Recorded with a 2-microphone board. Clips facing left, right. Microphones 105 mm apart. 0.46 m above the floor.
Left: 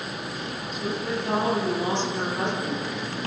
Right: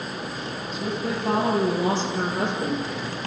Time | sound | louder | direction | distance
0.7 | a woman speaking | right 1 dB | 35° right (ahead or behind) | 10 m